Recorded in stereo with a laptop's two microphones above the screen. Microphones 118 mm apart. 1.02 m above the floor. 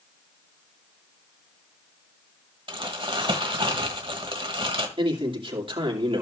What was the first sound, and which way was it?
Crumpling, 50° right (ahead or behind).